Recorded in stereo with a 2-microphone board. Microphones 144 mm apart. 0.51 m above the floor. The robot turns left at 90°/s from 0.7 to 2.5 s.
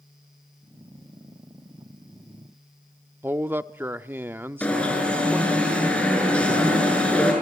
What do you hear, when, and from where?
3.2 s a man speaking: 15° right (ahead or behind), 0.6 m
4.6 s an alarm: 5° left (ahead or behind), 7 m